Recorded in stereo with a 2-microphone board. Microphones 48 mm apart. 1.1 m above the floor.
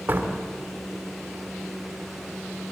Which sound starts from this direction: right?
A door slam, at 0.1 s.